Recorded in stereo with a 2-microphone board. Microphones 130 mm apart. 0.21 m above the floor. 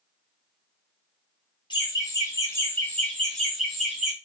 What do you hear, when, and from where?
1.7 s laughter: 35° left (ahead or behind), 1.4 m; by 4.1 s 5° right (ahead or behind), 1.7 m